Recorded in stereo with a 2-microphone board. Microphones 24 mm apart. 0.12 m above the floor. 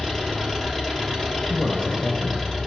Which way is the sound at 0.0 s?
20° left (ahead or behind).